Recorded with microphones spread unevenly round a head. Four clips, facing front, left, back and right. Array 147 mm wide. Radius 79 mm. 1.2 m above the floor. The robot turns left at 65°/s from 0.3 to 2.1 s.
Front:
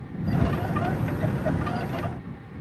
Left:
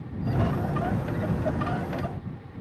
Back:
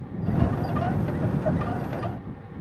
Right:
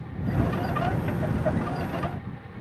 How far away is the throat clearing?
I don't hear throat clearing.